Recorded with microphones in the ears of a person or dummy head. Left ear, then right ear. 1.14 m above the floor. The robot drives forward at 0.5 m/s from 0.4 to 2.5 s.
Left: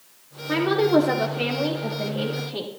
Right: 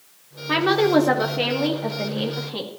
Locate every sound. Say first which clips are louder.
0.5 s a woman speaking: right 2 dB; 25° right (ahead or behind), 0.7 m; by 2.7 s 15° right (ahead or behind), 1.1 m